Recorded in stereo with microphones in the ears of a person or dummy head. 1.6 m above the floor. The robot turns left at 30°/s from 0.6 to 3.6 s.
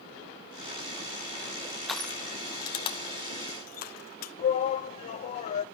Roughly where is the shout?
Left.